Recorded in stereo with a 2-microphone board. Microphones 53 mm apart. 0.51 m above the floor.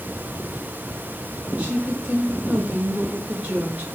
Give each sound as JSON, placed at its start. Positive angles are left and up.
{"t": 1.6, "sound": "a woman speaking", "side_deg": -30, "distance_m": 2.5}